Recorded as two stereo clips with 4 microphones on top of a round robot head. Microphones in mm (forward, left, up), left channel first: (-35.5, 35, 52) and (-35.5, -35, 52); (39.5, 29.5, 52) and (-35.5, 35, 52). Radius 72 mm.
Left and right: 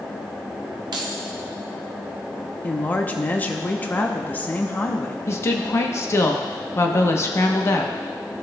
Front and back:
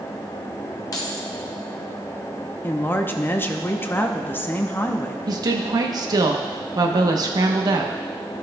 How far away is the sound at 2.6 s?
About 0.8 m.